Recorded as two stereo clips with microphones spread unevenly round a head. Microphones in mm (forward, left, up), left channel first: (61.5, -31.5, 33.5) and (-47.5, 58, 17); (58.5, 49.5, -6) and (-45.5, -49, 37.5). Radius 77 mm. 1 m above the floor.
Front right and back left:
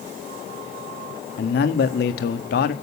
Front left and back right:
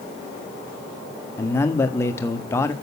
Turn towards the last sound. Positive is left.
turn(degrees=-30)